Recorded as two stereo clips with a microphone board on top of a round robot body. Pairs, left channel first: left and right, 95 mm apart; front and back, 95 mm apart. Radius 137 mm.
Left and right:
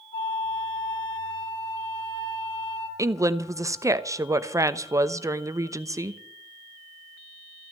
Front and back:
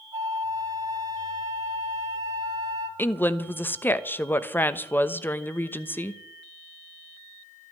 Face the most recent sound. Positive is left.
turn(degrees=-55)